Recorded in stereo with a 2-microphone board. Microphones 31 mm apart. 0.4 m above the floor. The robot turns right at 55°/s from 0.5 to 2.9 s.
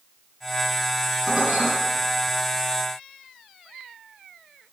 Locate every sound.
1.3 s dishes clattering: 25° right (ahead or behind), 4.5 m; by 1.7 s 50° right (ahead or behind), 4.5 m